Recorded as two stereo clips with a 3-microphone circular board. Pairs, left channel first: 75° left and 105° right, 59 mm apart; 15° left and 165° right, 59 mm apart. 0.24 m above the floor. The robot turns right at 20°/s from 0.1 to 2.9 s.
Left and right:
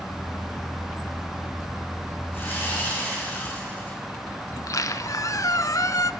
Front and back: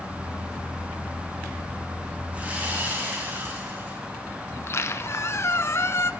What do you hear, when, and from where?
2.3 s sawing: 125° left, 8 m; by 4.0 s 135° left, 8 m
4.5 s a squeak: 55° left, 0.8 m